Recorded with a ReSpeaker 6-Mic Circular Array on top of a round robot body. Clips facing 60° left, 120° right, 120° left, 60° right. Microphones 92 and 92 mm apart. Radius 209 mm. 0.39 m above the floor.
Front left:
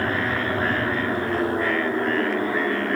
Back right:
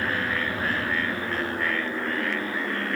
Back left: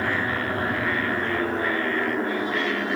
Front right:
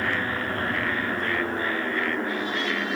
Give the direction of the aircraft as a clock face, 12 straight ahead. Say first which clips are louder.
Front left 3 dB, back left 2 dB; 10 o'clock.